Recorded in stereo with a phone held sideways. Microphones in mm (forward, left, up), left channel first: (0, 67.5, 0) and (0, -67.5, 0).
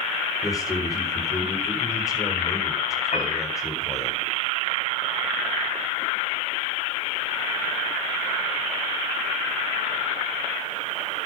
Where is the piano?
55° left (ahead or behind), 4 m.